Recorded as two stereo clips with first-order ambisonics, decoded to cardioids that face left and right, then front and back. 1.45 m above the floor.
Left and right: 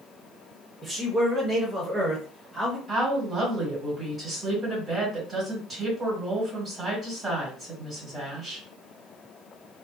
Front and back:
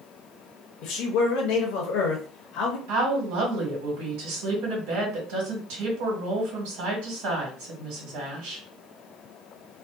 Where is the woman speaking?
170° right, 1.5 m.